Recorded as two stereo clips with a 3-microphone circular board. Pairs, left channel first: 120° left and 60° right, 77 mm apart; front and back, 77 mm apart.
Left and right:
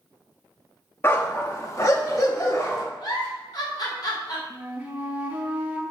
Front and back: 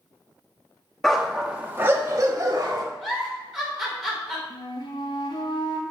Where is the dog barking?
80° left, 1.3 m; by 2.8 s 160° left, 2.0 m.